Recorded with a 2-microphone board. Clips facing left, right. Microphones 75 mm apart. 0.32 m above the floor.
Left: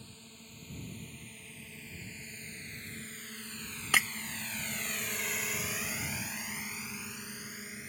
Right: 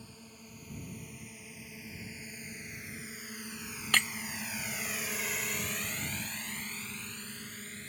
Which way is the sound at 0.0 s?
10° right (ahead or behind).